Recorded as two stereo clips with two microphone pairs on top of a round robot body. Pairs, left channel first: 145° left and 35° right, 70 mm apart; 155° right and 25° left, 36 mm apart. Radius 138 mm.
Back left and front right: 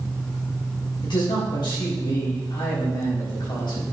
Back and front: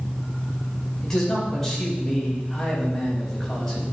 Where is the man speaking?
130° left, 3.5 m.